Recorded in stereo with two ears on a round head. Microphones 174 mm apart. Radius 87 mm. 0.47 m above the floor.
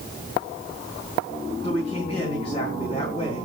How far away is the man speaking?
About 2.5 m.